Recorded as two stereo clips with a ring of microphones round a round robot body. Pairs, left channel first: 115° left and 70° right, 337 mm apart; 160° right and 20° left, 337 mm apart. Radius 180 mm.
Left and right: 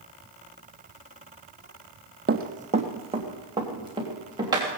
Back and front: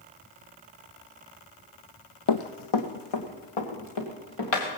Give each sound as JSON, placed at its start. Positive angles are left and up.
{"t": 2.3, "sound": "running footsteps", "azimuth_deg": -130, "distance_m": 1.0}